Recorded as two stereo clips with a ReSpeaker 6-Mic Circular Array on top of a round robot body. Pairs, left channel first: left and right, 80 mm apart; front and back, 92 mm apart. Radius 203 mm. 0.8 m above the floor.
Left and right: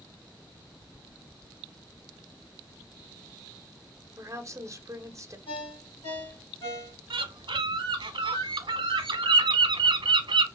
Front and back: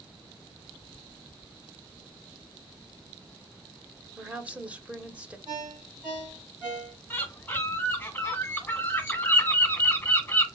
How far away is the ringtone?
About 2.0 m.